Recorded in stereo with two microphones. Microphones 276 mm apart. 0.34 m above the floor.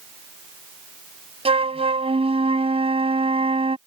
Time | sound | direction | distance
1.4 | a flute | 20° right (ahead or behind) | ?